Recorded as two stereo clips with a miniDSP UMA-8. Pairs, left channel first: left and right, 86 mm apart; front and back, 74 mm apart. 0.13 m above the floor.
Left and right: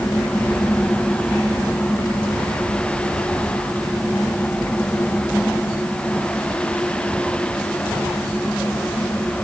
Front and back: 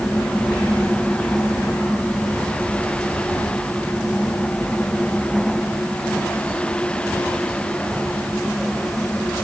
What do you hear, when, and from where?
Only background noise.